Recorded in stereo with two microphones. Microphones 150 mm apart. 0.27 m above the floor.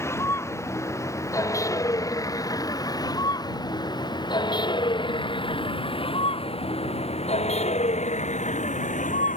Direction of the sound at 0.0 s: 20° left (ahead or behind).